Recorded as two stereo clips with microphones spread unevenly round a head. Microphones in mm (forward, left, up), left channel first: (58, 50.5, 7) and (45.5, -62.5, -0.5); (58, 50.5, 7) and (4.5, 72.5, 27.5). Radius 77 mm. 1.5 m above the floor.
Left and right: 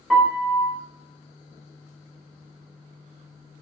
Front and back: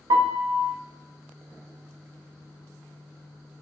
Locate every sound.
0.1 s a piano: 175° left, 0.6 m